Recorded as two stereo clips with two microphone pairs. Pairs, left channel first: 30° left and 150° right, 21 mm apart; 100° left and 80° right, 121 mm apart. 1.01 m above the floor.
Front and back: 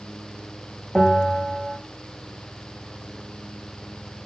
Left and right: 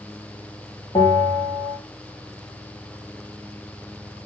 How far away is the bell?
About 1.6 m.